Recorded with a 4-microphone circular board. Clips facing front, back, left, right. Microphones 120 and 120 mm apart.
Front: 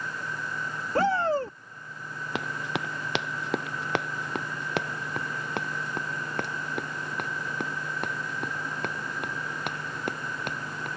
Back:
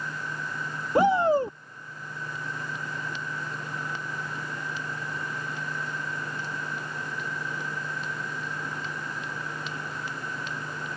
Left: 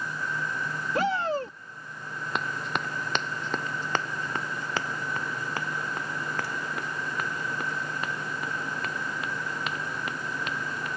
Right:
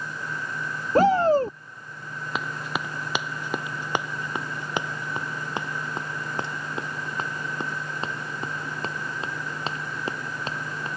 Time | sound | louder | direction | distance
0.9 | a shout | back 4 dB, right 9 dB | 115° right | ?
2.4 | running footsteps | front 7 dB, right 1 dB | 5° right | ?